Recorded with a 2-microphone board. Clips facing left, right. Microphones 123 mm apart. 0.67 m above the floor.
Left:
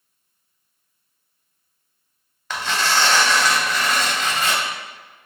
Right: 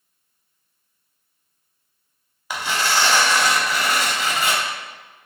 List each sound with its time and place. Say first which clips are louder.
2.5 s tearing paper: left 1 dB; 10° right (ahead or behind), 0.6 m